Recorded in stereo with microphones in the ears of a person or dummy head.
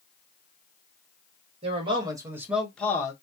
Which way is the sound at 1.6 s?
40° right (ahead or behind).